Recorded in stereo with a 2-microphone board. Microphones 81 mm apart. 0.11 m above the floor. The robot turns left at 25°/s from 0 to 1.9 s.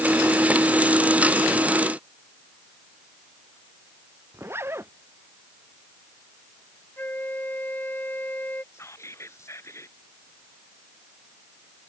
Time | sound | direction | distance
4.3 | a zipper | 35° right (ahead or behind) | ?
7.0 | a flute | 25° left (ahead or behind) | ?
8.7 | whispering | 40° left (ahead or behind) | ?